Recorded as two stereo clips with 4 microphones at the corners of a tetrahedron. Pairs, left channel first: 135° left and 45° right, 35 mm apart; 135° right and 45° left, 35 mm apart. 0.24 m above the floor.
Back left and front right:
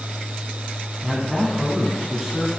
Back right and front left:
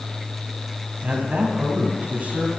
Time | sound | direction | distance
1.0 | a man speaking | 30° left | 1.6 m